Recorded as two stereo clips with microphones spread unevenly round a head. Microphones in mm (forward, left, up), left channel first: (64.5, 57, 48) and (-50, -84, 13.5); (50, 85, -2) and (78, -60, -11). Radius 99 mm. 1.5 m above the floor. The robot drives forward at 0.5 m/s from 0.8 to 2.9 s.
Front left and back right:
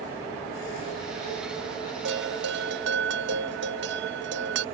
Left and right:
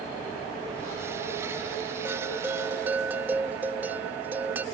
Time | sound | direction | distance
2.0 | a bell | 160° right | ?